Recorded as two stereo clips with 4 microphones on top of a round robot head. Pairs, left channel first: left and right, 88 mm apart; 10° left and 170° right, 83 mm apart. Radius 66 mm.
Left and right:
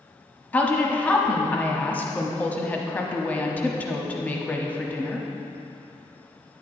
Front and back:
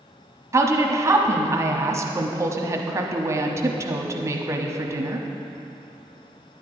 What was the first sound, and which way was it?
A woman speaking, 155° left.